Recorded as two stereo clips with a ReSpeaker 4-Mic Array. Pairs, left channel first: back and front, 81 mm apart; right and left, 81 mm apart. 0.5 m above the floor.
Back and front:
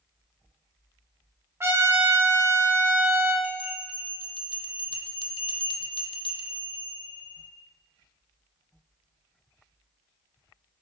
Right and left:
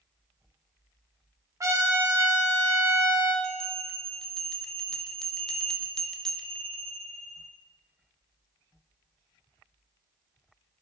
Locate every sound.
1.6 s a trumpet: 50° left, 1.0 m
3.4 s a bell: 170° right, 0.6 m